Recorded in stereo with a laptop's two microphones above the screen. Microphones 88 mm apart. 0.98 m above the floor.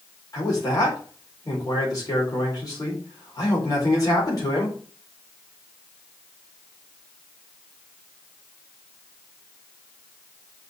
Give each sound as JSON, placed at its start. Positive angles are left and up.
{"t": 0.3, "sound": "a man speaking", "side_deg": 45, "distance_m": 4.0}